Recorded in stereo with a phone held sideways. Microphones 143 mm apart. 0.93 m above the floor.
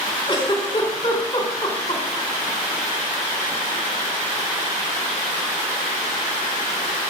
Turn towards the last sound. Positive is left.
turn(degrees=30)  # may be behind; listen again after turning